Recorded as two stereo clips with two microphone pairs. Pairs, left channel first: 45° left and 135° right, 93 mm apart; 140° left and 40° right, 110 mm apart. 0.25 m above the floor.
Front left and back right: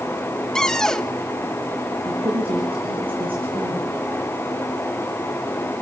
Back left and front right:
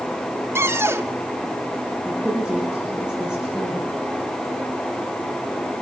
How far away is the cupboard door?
About 0.9 m.